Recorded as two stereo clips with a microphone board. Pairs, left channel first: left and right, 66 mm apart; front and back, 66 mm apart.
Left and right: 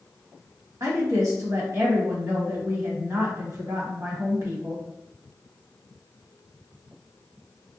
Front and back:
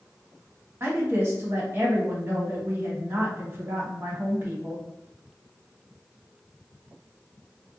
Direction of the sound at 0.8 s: 125° right.